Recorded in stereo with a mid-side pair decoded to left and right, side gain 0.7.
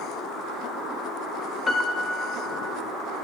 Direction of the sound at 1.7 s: 20° left.